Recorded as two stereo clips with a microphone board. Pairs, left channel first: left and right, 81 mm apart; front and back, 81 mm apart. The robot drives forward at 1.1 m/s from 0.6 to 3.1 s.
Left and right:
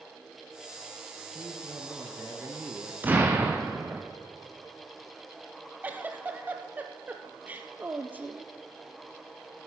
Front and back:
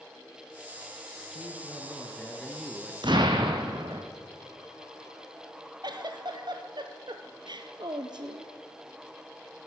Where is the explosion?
155° right, 1.5 m; by 4.0 s 160° right, 1.6 m.